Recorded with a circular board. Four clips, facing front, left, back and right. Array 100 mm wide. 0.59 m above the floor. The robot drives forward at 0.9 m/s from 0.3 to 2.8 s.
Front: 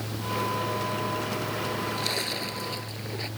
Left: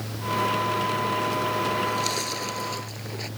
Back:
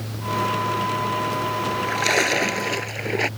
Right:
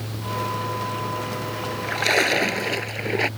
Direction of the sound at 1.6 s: 125° right.